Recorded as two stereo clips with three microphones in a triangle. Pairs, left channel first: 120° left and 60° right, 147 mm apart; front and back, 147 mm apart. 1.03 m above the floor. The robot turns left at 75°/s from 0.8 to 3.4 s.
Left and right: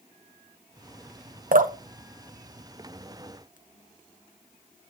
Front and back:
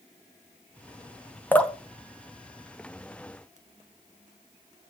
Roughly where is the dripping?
Right.